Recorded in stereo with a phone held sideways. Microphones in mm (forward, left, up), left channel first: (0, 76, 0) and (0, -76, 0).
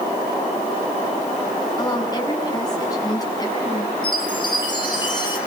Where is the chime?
30° left (ahead or behind), 5.5 m.